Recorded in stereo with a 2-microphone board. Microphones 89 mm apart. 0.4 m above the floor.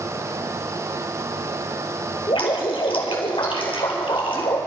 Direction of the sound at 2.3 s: 80° left.